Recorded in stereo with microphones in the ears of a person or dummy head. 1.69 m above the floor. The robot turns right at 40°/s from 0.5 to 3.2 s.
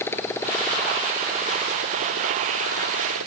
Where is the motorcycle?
165° left; by 3.3 s 85° right.